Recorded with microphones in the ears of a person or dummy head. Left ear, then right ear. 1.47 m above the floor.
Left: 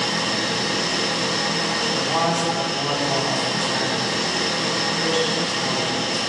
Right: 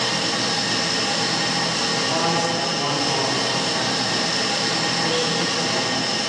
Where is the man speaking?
10° left (ahead or behind), 3 m.